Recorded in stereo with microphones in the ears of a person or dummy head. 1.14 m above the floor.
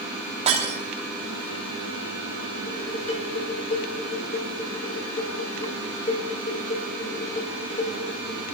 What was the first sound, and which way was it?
Breaking glass, 40° right (ahead or behind).